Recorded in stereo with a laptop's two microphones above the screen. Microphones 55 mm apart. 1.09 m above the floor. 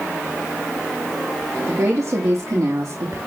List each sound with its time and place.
1.7 s a woman speaking: 65° right (ahead or behind), 2.5 m